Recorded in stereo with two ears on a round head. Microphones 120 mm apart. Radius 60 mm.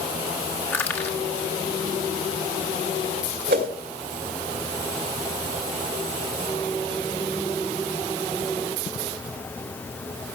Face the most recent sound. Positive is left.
turn(degrees=-75)  # may be behind; listen again after turning